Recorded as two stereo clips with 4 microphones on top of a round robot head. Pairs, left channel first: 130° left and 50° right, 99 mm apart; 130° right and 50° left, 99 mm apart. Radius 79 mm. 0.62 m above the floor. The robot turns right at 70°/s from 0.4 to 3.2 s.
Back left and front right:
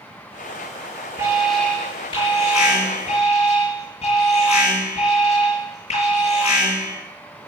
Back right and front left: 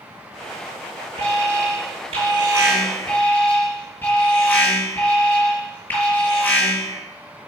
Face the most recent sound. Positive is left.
turn(degrees=160)